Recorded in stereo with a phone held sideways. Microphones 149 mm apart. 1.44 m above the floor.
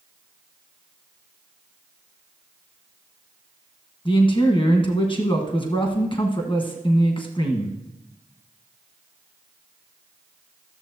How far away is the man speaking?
About 1.2 m.